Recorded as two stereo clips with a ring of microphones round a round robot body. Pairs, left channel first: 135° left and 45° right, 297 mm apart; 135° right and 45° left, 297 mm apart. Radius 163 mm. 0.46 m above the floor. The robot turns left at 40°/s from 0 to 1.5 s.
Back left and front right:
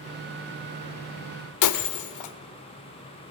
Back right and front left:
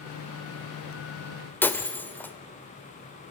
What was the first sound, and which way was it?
Breaking glass, 140° left.